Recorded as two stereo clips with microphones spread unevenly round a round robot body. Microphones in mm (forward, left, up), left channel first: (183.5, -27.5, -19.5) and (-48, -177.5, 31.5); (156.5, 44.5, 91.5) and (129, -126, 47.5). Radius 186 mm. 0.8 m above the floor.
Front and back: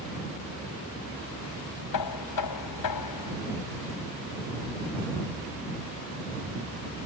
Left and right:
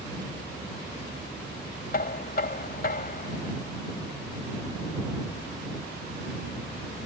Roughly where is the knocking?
Ahead left.